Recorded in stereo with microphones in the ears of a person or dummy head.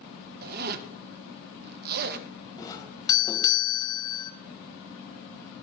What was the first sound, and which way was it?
A zipper, 55° right (ahead or behind).